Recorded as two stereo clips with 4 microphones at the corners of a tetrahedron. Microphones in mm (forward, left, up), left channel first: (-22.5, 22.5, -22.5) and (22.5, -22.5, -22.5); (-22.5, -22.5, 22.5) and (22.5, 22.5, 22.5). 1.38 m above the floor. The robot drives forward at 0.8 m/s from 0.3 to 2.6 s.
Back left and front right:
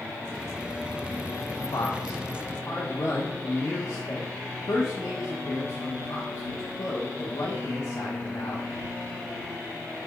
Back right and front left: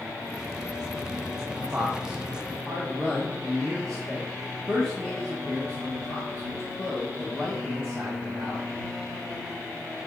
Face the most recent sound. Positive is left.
turn(degrees=150)